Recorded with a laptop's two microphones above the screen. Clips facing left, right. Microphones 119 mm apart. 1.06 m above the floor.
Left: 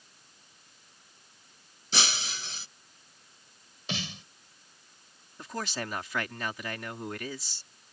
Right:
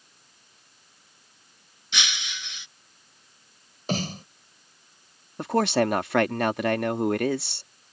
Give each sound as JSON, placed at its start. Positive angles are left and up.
{"t": 1.9, "sound": "breaking glass", "side_deg": 40}
{"t": 3.9, "sound": "a snare drum", "side_deg": -50}
{"t": 5.4, "sound": "a man speaking", "side_deg": -75}